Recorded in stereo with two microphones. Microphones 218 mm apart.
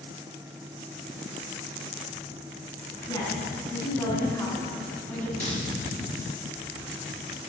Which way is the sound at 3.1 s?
20° left (ahead or behind).